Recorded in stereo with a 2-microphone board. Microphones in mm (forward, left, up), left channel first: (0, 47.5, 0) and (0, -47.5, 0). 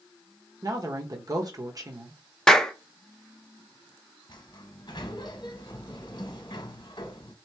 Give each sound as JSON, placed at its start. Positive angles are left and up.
{"t": 0.6, "sound": "a woman speaking", "side_deg": -40, "distance_m": 1.2}
{"t": 2.5, "sound": "a clap", "side_deg": 5, "distance_m": 0.7}
{"t": 4.3, "sound": "a sliding door", "side_deg": 50, "distance_m": 0.9}